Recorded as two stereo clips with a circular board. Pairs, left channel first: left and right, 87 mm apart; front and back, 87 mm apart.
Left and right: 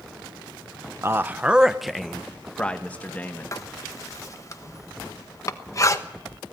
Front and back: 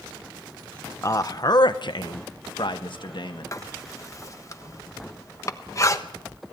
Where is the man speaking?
40° right, 0.8 m; by 3.5 s 25° left, 2 m.